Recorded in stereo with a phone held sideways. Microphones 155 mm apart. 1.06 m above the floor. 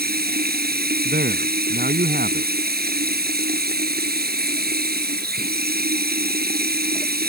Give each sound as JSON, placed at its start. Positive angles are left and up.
{"t": 0.0, "sound": "running water", "side_deg": -90}
{"t": 1.1, "sound": "a man speaking", "side_deg": -85}